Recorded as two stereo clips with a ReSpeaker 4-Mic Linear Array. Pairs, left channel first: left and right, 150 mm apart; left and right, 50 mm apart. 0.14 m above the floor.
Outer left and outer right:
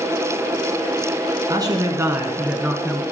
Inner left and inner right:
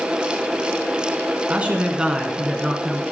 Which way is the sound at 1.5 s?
30° right (ahead or behind).